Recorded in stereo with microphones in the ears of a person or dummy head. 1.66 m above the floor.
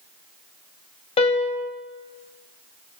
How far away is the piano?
About 2 m.